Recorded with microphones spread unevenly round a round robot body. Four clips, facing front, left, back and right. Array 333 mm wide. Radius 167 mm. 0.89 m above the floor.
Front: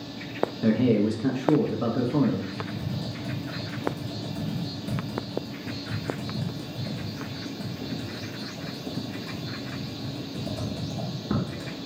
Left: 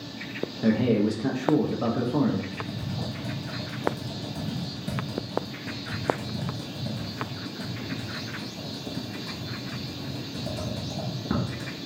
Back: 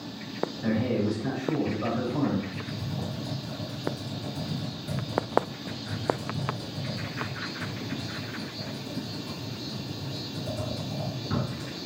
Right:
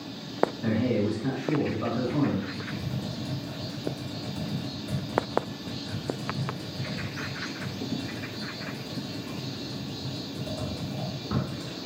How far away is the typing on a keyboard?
About 1.3 m.